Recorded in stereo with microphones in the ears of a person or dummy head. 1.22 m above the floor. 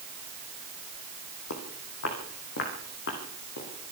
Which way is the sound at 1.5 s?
65° left (ahead or behind).